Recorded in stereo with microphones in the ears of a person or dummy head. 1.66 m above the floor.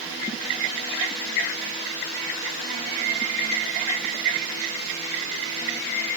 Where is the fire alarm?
I don't hear a fire alarm.